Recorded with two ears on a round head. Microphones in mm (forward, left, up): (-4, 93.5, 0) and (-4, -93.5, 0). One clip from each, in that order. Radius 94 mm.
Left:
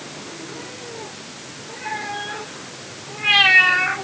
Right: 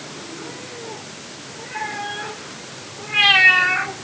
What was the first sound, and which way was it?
Only background noise.